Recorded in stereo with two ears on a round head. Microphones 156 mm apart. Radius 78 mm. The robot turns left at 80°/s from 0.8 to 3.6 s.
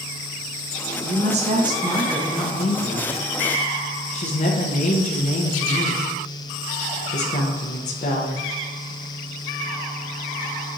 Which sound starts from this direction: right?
A woman speaking, at 1.0 s.